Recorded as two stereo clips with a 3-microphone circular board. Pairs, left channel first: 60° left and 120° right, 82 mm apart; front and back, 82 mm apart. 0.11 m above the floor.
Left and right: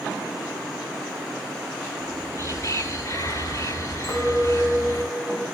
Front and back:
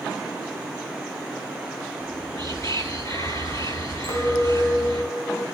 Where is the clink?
5° left, 6 m.